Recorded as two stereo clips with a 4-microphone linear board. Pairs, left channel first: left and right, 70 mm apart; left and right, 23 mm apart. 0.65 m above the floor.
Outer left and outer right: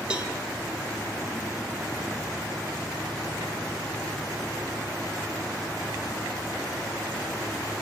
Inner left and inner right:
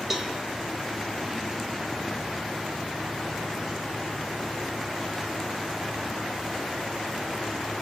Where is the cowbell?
15° right (ahead or behind), 1.1 m.